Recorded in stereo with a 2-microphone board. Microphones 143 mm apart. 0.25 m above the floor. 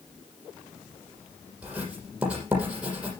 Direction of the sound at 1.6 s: 10° right (ahead or behind).